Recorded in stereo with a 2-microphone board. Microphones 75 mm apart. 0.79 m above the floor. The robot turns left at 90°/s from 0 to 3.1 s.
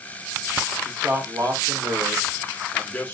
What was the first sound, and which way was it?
A man speaking, 5° right.